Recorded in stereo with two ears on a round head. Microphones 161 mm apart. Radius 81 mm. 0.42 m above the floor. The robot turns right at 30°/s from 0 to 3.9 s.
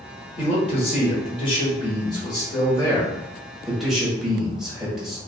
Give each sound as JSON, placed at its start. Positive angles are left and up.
{"t": 0.4, "sound": "a man speaking", "azimuth_deg": 80, "distance_m": 1.1}